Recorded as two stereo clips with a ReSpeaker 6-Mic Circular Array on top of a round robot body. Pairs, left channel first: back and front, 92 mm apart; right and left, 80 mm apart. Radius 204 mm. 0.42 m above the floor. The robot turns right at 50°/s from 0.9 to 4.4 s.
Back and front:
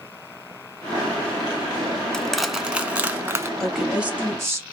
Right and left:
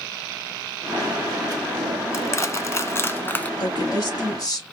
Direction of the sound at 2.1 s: 105° right.